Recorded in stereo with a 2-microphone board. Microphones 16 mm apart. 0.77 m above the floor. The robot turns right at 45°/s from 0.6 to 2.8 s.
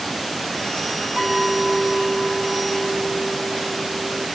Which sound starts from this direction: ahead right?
A clink, at 1.2 s.